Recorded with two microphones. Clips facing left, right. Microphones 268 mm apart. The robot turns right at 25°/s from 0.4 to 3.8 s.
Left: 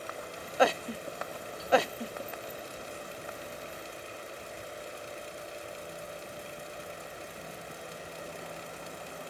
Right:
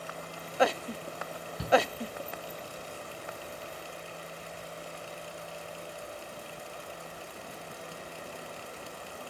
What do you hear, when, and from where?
1.6 s a shout: 70° right (ahead or behind), 3 m; by 1.8 s 75° right (ahead or behind), 3 m